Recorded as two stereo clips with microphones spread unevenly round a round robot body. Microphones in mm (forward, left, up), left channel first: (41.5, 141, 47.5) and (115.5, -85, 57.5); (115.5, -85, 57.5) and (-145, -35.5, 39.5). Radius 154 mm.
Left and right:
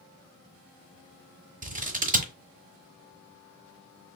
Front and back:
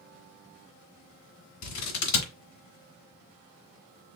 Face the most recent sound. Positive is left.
turn(degrees=-15)